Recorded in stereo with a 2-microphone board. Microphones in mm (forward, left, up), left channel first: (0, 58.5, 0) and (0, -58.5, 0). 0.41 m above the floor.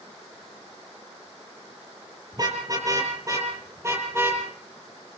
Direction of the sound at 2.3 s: 35° right (ahead or behind).